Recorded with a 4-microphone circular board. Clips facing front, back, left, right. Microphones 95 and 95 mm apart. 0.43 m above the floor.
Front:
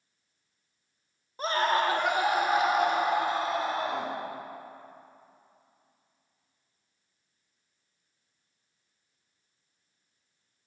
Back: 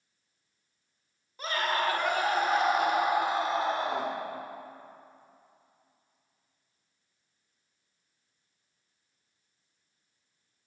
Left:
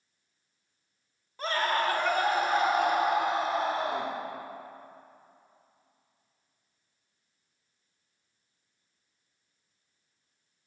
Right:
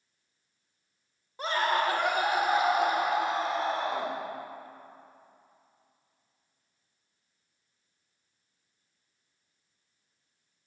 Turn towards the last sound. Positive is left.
turn(degrees=165)